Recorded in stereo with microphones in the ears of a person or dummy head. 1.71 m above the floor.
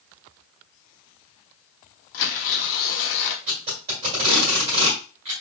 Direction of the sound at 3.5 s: 25° right (ahead or behind).